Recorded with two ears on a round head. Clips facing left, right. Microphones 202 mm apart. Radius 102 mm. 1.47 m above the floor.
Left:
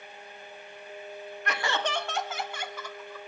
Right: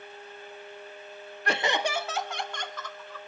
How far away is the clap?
No clap in this recording.